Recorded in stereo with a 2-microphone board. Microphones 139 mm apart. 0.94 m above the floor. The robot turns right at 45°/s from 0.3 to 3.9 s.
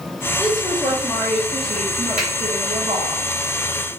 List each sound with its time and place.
0.4 s a woman speaking: 160° left, 0.8 m; by 3.2 s 75° right, 0.8 m
2.2 s a finger snap: 70° right (ahead or behind), 2 m